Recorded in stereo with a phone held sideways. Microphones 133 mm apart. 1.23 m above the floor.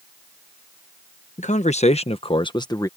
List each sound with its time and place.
1.4 s a man speaking: 65° left (ahead or behind); by 2.9 s 25° left (ahead or behind)